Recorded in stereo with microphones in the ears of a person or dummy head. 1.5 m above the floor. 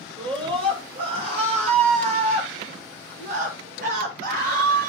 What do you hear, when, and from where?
0.2 s a scream: 30° right (ahead or behind), 6 m; by 4.9 s 55° right (ahead or behind), 6.5 m